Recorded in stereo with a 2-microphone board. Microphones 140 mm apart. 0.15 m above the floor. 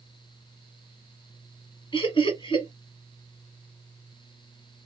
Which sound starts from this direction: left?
Laughter, at 1.9 s.